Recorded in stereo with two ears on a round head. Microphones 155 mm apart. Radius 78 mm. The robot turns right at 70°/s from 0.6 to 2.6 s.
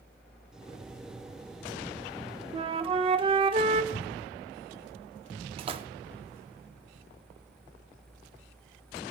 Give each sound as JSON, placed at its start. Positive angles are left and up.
{"t": 2.5, "sound": "a flute", "side_deg": -25, "distance_m": 0.5}
{"t": 3.9, "sound": "a cupboard door", "side_deg": 30, "distance_m": 1.3}
{"t": 5.6, "sound": "a splash", "side_deg": -30, "distance_m": 0.5}